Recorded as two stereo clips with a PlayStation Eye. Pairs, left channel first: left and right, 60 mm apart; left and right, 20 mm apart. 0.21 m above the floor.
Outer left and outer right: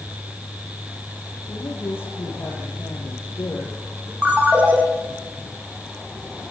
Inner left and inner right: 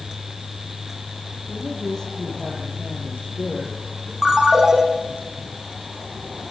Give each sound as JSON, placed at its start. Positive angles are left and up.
{"t": 1.5, "sound": "a man speaking", "side_deg": 45, "distance_m": 5.5}
{"t": 4.2, "sound": "a ringtone", "side_deg": -30, "distance_m": 5.0}